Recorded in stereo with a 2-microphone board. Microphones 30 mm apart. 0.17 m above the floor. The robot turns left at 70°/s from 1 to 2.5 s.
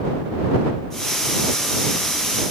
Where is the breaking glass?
No breaking glass in this recording.